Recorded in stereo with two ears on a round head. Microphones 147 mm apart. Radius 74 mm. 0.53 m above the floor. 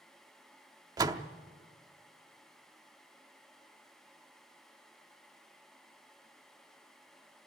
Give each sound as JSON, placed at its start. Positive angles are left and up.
{"t": 1.0, "sound": "a door slam", "side_deg": -25, "distance_m": 0.7}